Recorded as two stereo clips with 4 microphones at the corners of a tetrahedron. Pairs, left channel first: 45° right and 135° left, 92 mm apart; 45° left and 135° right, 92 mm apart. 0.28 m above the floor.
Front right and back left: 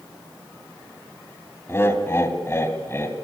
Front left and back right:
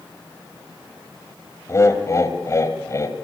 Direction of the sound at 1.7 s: 5° left.